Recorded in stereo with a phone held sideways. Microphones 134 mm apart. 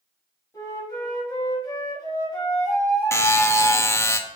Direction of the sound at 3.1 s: 20° left (ahead or behind).